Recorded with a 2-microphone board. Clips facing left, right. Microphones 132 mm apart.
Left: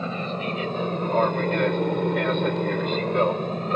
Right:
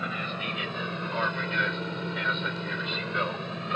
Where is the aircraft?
35° left (ahead or behind); by 3.8 s 40° left (ahead or behind).